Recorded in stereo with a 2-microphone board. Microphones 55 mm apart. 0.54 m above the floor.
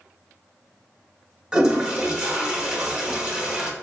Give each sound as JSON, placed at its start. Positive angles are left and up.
{"t": 1.5, "sound": "a toilet flushing", "side_deg": -15, "distance_m": 0.7}